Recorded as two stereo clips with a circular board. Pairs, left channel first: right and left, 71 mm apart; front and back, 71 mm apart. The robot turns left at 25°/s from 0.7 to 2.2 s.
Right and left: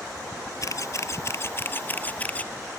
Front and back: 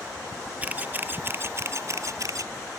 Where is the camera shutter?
115° right; by 2.5 s 155° right.